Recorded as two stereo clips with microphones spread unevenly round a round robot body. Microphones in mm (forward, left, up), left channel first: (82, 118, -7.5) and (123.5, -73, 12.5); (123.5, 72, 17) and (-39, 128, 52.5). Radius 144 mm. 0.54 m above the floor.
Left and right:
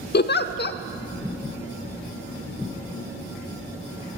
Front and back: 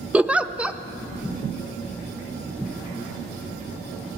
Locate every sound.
0.1 s a giggle: 70° left, 0.6 m